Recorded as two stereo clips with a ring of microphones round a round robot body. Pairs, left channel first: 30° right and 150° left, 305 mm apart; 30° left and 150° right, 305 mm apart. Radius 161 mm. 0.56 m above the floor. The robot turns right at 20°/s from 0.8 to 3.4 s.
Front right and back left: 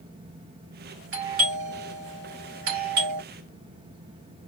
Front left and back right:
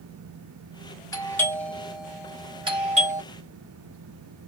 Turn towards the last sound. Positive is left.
turn(degrees=155)